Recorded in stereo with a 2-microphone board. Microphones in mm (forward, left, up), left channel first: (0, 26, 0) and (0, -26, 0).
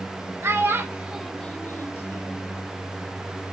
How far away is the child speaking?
About 1.2 m.